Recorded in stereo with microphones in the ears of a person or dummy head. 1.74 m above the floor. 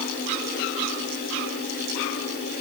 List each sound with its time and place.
Only background noise.